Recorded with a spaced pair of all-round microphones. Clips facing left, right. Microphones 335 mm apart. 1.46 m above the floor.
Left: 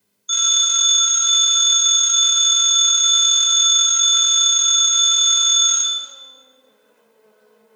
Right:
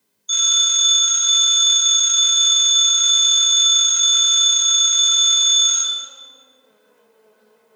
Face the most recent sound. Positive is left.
turn(degrees=20)  # may be behind; listen again after turning